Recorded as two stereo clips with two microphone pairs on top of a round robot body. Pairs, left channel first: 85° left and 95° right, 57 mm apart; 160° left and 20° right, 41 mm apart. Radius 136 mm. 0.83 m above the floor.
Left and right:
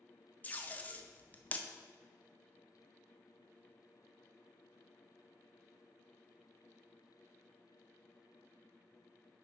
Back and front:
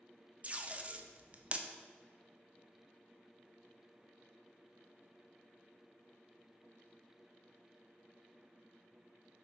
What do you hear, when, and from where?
0.4 s tape being pulled: 35° left, 0.8 m